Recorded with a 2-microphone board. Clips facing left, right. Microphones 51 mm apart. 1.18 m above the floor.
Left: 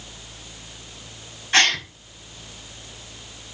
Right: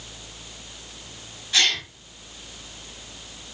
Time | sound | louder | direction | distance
1.5 | a gasp | left 4 dB | 45° left (ahead or behind) | 3.5 m